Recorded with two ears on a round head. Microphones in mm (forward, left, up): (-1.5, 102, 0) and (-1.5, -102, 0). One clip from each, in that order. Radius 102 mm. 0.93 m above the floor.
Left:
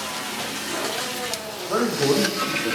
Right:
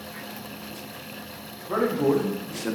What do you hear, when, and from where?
1.7 s a man speaking: 20° left (ahead or behind), 1.5 m; by 2.8 s 5° right (ahead or behind), 0.9 m